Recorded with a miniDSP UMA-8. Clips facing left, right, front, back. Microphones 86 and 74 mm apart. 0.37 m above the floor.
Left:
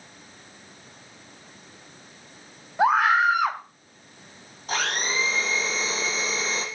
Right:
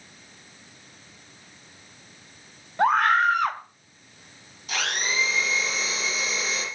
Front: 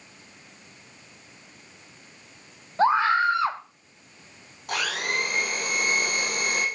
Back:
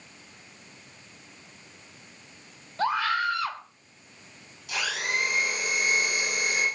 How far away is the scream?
About 1.1 m.